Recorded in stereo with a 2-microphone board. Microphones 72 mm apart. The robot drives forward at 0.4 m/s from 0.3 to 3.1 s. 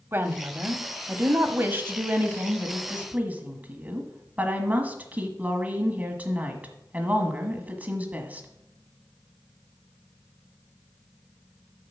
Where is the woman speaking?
30° right (ahead or behind), 1.0 m; by 8.5 s 20° right (ahead or behind), 1.4 m.